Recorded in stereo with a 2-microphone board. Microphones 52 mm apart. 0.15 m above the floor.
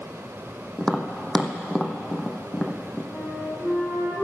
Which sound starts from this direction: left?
A flute, at 3.1 s.